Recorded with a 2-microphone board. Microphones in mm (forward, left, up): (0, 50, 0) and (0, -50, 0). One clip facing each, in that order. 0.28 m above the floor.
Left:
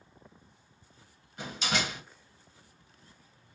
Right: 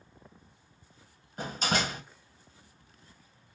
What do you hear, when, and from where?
1.4 s a door slam: 45° right (ahead or behind), 1.3 m